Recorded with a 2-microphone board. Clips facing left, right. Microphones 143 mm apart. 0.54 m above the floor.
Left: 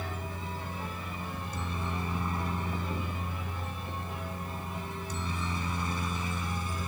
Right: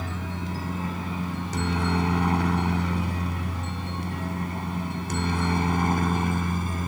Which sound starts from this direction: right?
A helicopter, at 0.0 s.